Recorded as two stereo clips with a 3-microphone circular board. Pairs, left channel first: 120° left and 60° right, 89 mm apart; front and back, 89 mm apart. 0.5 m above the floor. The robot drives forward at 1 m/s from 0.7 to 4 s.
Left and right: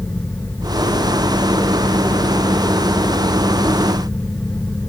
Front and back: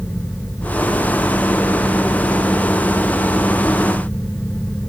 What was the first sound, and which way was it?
Only background noise.